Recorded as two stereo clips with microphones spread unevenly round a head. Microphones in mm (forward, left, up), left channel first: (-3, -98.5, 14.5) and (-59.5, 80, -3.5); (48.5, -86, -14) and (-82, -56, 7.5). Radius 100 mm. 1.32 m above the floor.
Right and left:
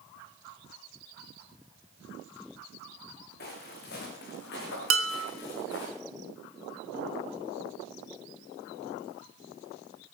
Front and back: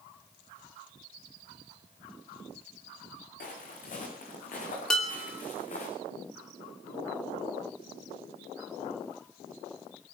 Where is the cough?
No cough in this recording.